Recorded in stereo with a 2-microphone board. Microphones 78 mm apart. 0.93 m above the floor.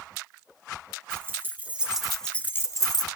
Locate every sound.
1.1 s keys jangling: 30° right (ahead or behind), 1.7 m; by 3.1 s 60° left (ahead or behind), 1.0 m